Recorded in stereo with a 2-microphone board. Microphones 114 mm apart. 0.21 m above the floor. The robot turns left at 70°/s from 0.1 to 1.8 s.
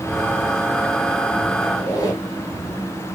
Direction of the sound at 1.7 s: 35° left (ahead or behind).